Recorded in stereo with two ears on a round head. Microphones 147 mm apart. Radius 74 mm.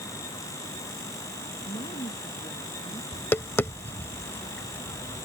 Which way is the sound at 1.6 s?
30° left (ahead or behind).